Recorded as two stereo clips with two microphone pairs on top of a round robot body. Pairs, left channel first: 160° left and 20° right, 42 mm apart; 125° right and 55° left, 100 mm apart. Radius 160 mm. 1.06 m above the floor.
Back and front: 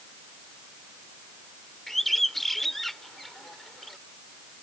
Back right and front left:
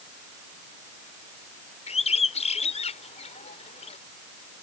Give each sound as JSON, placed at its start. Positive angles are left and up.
{"t": 1.9, "sound": "a bird", "azimuth_deg": -115}